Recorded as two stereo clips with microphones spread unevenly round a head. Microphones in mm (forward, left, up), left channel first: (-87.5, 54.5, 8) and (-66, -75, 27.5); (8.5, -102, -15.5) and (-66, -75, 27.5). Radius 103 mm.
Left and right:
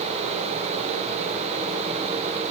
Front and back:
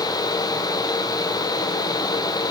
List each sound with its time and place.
Only background noise.